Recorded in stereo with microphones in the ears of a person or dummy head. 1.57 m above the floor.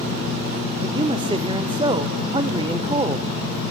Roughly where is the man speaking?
Right.